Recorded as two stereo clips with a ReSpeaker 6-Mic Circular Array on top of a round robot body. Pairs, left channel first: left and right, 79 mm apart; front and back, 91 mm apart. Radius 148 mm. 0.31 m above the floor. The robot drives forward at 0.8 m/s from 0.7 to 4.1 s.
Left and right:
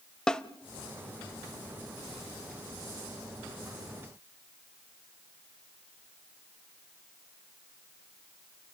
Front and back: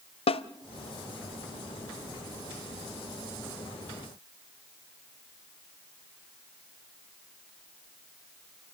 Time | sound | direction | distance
0.3 | a snare drum | 10° left | 0.6 m